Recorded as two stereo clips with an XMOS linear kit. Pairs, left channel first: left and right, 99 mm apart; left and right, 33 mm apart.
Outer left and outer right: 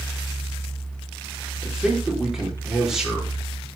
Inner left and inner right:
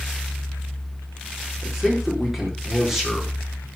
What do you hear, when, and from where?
1.6 s a man speaking: 5° right (ahead or behind), 4.5 m